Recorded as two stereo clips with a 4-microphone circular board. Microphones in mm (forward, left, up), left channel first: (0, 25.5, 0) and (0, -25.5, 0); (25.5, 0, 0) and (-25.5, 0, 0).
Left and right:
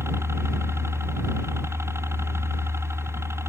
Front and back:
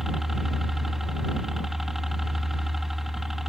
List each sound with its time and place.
0.0 s a helicopter: 95° right